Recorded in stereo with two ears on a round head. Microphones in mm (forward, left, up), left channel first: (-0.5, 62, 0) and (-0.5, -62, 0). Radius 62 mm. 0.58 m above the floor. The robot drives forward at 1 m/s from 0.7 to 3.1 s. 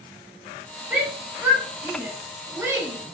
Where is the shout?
15° right (ahead or behind), 5.5 m; by 3.0 s 20° right (ahead or behind), 3.5 m.